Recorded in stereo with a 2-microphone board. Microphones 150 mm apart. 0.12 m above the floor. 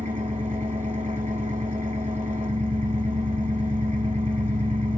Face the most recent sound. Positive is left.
turn(degrees=-55)  # may be behind; listen again after turning